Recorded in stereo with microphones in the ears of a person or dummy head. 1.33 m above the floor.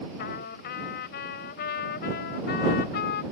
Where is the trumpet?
60° left (ahead or behind).